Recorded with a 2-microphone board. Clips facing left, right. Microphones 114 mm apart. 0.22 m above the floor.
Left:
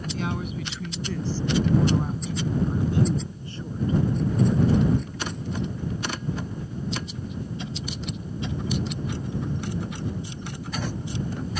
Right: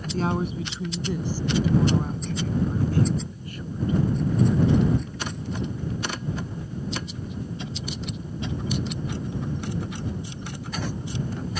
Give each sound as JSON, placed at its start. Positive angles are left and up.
{"t": 0.1, "sound": "a woman speaking", "side_deg": -40}